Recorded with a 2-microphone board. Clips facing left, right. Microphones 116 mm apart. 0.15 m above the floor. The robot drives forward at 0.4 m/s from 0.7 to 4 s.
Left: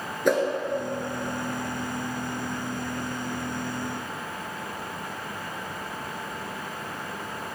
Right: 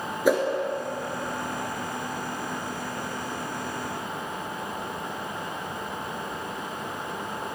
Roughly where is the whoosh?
Centre.